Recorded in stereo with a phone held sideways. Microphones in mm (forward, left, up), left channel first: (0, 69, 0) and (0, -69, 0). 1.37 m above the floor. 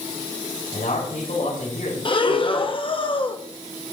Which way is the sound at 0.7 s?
85° left.